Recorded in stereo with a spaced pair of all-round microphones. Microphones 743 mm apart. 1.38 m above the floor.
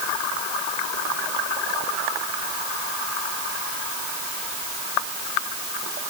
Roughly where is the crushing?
No crushing in this recording.